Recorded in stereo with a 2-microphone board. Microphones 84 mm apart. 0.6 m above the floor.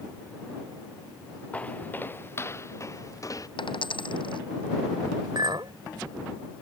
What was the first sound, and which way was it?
Footsteps, 15° left (ahead or behind).